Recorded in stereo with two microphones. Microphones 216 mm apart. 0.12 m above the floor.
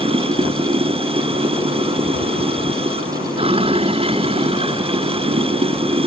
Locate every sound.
0.0 s running water: 25° right (ahead or behind)